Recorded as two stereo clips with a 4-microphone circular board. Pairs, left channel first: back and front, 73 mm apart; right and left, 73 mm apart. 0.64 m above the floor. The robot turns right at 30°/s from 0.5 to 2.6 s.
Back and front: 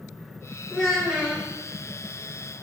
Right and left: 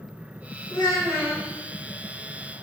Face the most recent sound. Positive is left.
turn(degrees=-55)